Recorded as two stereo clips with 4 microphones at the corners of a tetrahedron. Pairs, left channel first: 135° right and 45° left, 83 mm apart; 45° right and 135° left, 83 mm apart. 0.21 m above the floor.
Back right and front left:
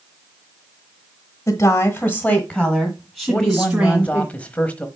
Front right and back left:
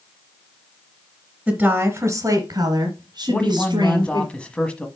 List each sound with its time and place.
1.5 s a woman speaking: 155° right, 1.5 m; by 4.3 s 110° left, 3 m
3.3 s a man speaking: 95° right, 1.0 m